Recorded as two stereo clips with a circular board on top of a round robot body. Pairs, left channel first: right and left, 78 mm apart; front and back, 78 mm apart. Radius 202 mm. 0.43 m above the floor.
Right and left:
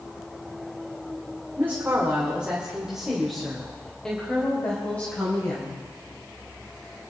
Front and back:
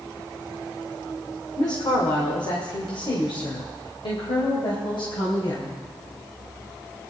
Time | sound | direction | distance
1.6 | a woman speaking | 30° left | 2 m